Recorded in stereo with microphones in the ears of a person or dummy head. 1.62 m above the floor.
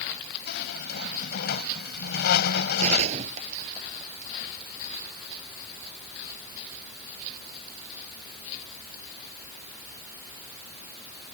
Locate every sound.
0.5 s a squeak: 60° left (ahead or behind)
2.8 s a gunshot: 35° right (ahead or behind)